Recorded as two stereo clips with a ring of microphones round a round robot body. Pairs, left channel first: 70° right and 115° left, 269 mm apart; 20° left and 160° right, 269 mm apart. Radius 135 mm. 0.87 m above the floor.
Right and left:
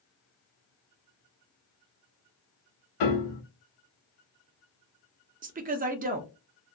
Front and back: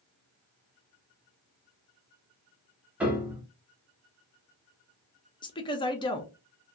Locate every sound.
3.0 s a piano: 75° right, 0.8 m
5.4 s a woman speaking: 80° left, 0.5 m